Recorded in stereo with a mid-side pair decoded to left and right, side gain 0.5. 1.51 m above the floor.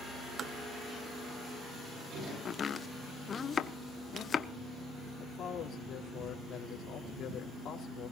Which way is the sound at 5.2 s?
55° left.